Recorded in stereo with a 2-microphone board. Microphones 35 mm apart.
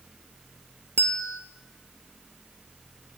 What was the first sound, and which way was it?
A bell, 55° left (ahead or behind).